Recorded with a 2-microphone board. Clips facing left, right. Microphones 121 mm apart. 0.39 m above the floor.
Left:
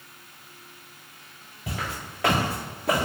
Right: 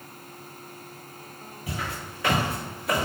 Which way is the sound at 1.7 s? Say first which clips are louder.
Left 1 dB; 75° left (ahead or behind).